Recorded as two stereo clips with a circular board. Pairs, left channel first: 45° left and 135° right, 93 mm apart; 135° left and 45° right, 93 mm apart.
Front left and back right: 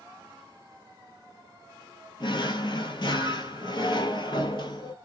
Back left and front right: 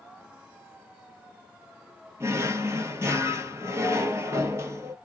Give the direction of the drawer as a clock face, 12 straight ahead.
11 o'clock.